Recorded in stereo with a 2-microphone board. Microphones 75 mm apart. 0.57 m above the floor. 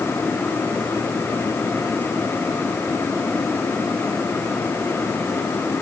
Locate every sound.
Only background noise.